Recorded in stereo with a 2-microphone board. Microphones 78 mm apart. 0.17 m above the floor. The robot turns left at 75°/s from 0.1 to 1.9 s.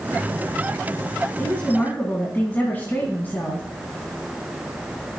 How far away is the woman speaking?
About 1.4 m.